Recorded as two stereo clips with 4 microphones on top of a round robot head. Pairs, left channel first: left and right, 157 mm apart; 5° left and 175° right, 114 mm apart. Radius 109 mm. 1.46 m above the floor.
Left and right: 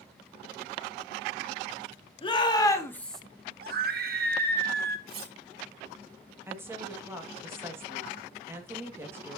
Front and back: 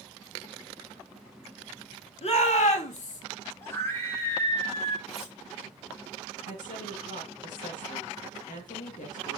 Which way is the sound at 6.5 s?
15° right.